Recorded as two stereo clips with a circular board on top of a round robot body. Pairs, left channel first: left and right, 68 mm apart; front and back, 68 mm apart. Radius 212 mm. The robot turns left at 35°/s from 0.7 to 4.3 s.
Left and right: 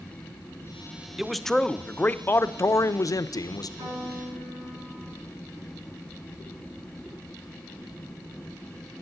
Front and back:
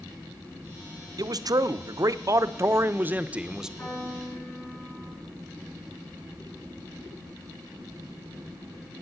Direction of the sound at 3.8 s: 65° right.